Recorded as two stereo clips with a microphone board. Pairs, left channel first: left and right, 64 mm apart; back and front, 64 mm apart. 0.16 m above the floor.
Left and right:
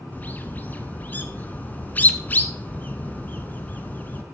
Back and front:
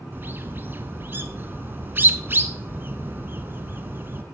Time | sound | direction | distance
0.1 | a bird | 40° left | 0.8 m